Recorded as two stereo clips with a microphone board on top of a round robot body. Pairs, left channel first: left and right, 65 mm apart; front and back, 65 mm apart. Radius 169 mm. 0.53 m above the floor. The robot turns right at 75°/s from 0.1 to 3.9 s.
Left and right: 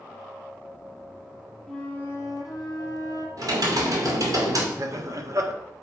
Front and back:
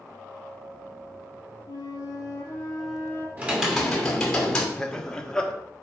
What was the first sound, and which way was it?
A flute, 5° left.